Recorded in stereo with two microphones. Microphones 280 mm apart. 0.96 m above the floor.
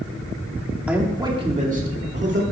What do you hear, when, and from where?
0.9 s a man speaking: 5° right (ahead or behind), 1.8 m; by 2.4 s 45° right (ahead or behind), 2 m